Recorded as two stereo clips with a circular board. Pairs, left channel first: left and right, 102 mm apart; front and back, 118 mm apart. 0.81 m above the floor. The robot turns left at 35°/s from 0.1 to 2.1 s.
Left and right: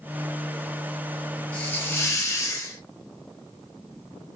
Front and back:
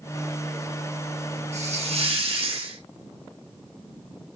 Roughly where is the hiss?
Behind.